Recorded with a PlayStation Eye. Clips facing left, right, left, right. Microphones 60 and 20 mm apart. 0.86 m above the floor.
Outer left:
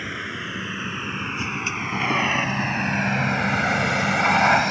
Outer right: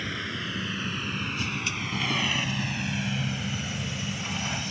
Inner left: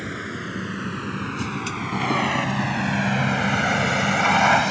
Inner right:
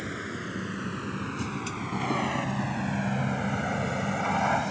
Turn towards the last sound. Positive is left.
turn(degrees=70)  # may be behind; listen again after turning